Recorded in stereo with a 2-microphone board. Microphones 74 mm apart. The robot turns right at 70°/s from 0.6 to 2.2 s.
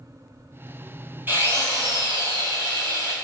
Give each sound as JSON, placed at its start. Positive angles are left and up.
{"t": 1.3, "sound": "a drill", "azimuth_deg": -150, "distance_m": 1.3}